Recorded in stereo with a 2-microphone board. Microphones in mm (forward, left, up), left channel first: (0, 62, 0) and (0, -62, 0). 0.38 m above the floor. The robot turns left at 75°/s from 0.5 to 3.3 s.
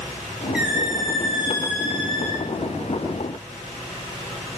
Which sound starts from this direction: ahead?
A squeak, at 0.5 s.